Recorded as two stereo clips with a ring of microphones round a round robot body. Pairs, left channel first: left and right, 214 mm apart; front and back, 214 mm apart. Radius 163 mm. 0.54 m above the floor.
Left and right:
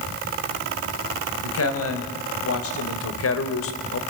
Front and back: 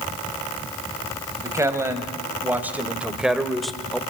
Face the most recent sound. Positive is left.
turn(degrees=85)